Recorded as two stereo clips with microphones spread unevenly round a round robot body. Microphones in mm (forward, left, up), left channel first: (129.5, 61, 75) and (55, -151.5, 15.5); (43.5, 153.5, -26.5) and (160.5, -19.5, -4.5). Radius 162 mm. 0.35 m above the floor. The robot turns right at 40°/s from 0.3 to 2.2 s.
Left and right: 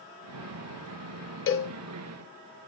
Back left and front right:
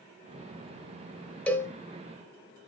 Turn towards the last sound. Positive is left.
turn(degrees=75)